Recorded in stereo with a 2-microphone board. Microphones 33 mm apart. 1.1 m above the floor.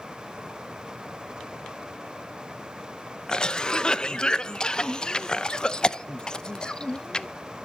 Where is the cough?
30° left (ahead or behind), 0.6 m.